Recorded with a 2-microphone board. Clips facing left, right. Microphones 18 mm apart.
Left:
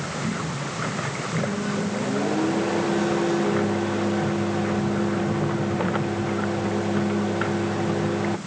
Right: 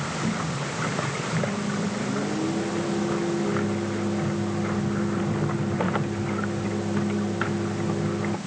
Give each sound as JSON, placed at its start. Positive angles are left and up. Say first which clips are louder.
{"t": 1.4, "sound": "a microwave", "louder": "left 3 dB", "side_deg": 35}